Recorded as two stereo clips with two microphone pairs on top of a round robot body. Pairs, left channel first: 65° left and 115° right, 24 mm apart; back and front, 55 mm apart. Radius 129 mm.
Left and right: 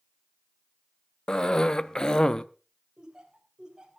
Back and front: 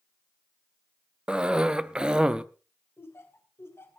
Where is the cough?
105° left, 0.8 m.